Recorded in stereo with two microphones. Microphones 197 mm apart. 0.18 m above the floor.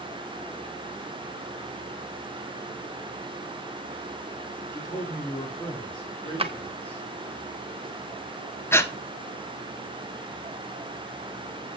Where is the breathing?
10° left (ahead or behind), 0.7 m.